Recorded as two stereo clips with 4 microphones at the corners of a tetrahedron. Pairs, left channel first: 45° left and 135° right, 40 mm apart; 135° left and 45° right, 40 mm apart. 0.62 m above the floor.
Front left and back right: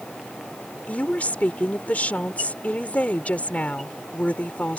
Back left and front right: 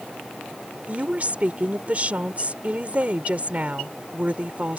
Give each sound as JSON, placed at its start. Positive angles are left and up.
{"t": 0.9, "sound": "a woman speaking", "azimuth_deg": 5}